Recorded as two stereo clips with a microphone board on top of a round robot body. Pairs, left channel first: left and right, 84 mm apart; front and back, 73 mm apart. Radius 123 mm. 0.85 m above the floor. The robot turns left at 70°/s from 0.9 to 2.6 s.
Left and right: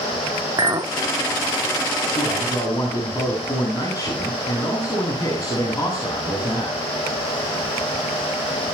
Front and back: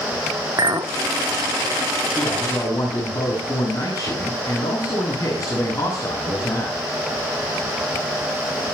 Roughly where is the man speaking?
Left.